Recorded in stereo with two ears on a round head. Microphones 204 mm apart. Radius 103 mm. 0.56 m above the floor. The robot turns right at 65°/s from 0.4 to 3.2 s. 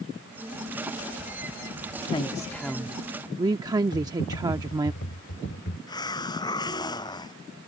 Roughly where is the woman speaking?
Behind left.